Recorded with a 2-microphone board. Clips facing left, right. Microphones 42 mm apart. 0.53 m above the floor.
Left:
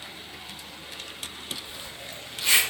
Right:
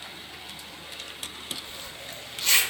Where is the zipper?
10° left (ahead or behind), 0.5 m.